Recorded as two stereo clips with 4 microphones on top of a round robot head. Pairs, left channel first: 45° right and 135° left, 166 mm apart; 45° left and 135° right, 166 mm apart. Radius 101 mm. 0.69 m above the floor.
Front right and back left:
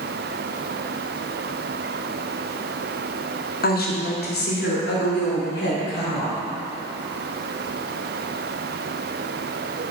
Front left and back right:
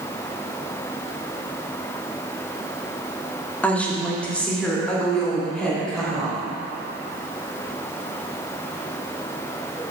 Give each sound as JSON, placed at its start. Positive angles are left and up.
{"t": 3.6, "sound": "a woman speaking", "azimuth_deg": -35, "distance_m": 1.8}